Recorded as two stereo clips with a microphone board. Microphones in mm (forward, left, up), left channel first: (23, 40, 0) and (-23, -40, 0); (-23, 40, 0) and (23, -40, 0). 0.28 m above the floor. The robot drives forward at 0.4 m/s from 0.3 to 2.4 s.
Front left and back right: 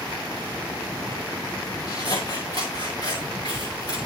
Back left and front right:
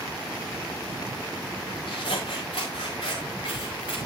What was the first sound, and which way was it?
Scissors, 100° left.